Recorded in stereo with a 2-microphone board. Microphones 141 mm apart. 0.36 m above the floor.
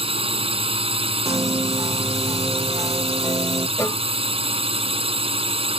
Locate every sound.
0.0 s a drone: 40° right (ahead or behind)
1.2 s a piano: 25° right (ahead or behind)
3.8 s a cowbell: 20° left (ahead or behind)